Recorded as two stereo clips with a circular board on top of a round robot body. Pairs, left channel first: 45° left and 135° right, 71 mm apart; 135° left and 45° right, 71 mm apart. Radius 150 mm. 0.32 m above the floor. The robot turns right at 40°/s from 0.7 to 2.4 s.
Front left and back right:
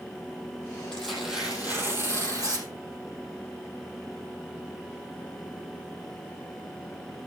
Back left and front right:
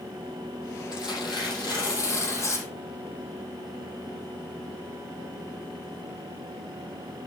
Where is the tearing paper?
125° left, 5.5 m; by 2.7 s 175° right, 5.5 m.